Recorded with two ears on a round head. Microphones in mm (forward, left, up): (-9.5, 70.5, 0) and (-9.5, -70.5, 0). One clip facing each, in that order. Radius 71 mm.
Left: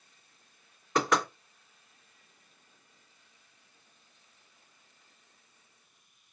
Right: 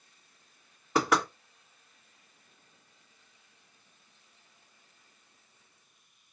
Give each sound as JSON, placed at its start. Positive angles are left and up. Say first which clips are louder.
{"t": 0.9, "sound": "knocking", "louder": "right 1 dB", "side_deg": -10, "distance_m": 1.7}